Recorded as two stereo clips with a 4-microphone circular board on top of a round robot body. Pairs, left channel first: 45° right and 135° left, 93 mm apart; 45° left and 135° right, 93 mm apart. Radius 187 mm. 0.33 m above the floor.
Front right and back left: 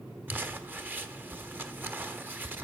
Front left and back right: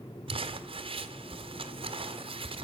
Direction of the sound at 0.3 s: 155° right.